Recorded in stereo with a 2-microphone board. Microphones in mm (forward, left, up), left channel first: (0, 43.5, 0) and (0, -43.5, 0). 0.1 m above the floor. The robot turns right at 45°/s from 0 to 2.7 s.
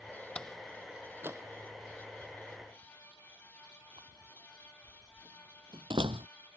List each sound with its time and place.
0.3 s a door slam: 15° left (ahead or behind); by 6.3 s 70° right (ahead or behind)